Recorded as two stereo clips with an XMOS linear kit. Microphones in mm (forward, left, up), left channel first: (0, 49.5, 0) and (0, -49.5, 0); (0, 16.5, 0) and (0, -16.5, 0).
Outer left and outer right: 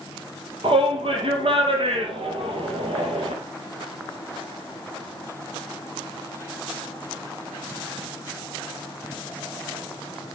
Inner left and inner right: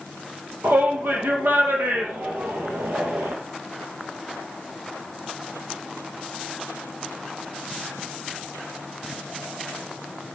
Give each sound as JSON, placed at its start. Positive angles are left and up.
{"t": 0.6, "sound": "a shout", "side_deg": -65, "distance_m": 5.0}